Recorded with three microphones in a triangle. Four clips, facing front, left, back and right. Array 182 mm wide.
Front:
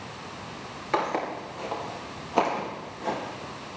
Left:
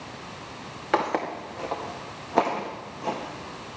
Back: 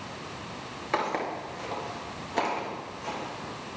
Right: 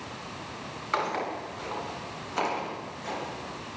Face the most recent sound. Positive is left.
turn(degrees=40)